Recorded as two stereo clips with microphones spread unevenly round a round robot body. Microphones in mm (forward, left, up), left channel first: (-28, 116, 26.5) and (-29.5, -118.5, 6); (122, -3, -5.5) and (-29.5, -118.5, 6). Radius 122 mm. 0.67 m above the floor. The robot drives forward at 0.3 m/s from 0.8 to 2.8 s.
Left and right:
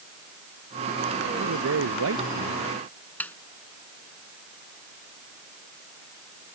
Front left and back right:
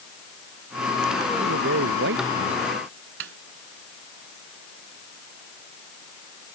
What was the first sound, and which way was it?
A man speaking, 120° right.